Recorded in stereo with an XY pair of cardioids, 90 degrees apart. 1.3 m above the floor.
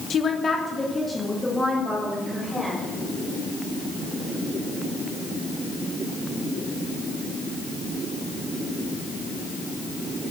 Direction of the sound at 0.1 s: 60° left.